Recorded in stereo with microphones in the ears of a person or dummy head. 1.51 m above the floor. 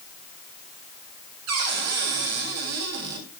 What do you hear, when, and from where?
1.5 s a cupboard door: 85° right, 4.5 m